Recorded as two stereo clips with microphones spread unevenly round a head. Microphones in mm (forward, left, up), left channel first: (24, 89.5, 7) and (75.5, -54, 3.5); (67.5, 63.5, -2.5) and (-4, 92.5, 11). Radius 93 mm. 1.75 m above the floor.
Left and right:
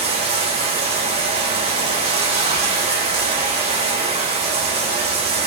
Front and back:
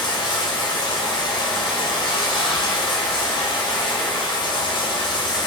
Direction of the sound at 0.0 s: 25° right.